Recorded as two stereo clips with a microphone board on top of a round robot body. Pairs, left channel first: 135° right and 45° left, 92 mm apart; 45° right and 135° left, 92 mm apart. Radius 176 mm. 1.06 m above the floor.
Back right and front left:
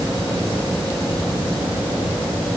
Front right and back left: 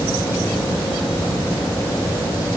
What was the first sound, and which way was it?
Only background noise.